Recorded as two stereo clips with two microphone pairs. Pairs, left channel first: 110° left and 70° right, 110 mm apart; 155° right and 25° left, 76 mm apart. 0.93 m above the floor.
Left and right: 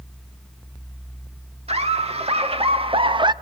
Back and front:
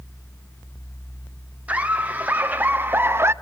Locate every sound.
1.7 s laughter: 45° right, 2 m; by 3.3 s 30° right, 0.7 m